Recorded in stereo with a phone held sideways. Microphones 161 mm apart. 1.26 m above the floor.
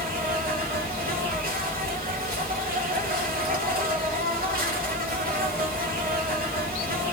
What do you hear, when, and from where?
0.0 s an insect: 70° right (ahead or behind), 1.4 m